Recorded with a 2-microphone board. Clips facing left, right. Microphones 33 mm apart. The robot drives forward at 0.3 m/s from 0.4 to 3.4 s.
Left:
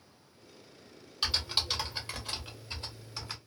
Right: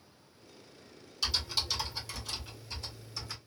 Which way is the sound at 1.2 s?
40° left (ahead or behind).